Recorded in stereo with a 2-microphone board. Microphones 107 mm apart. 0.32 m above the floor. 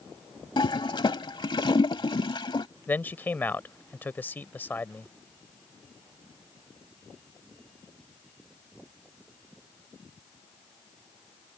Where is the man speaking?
20° left (ahead or behind).